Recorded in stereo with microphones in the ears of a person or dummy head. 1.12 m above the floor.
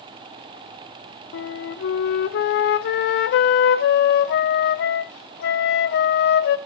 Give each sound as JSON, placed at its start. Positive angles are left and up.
{"t": 1.3, "sound": "a flute", "side_deg": 55, "distance_m": 0.8}